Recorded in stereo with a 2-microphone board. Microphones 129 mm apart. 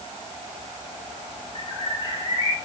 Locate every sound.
1.6 s a bird: 40° left (ahead or behind), 2.5 m